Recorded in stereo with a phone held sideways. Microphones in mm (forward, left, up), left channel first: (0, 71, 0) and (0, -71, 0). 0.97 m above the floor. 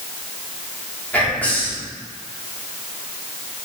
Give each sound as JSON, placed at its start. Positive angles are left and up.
{"t": 1.1, "sound": "whispering", "side_deg": 10, "distance_m": 0.9}